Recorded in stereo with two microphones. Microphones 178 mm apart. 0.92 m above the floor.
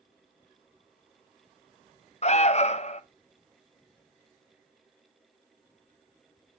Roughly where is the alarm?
Left.